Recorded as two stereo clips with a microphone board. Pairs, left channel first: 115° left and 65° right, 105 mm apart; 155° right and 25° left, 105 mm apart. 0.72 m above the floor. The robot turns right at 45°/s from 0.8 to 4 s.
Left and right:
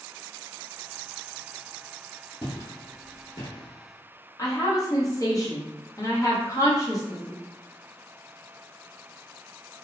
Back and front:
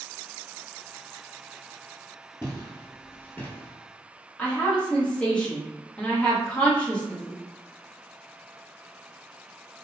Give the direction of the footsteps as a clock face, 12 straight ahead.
7 o'clock.